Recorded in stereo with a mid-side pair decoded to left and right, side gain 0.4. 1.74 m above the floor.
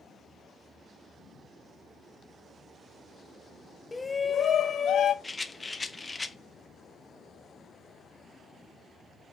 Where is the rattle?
20° left, 0.6 m.